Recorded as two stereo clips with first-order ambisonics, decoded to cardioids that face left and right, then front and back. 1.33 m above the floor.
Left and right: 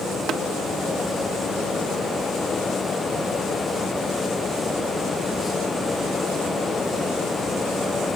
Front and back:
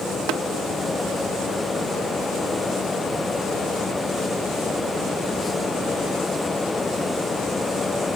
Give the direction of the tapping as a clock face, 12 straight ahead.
5 o'clock.